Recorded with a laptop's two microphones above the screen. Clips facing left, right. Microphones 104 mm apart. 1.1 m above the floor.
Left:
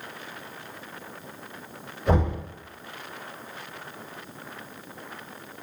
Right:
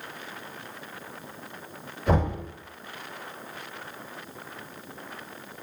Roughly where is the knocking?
Centre.